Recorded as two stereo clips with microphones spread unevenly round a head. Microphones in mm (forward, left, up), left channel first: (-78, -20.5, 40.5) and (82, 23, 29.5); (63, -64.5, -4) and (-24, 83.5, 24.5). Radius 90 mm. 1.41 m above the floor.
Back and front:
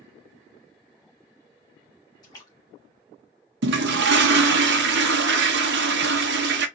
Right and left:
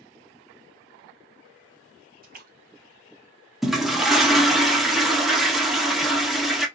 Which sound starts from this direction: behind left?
A splash, at 2.2 s.